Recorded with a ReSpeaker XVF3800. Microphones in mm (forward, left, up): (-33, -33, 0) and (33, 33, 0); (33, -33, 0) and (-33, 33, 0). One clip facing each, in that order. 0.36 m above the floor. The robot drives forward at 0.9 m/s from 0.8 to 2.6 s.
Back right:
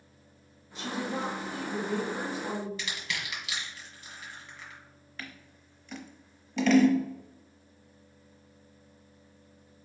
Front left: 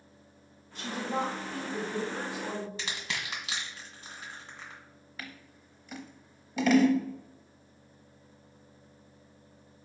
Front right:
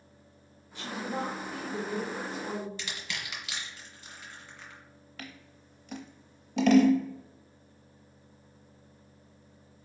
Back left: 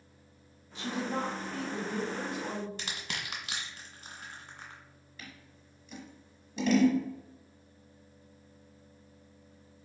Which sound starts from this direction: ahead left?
A woman speaking, at 0.8 s.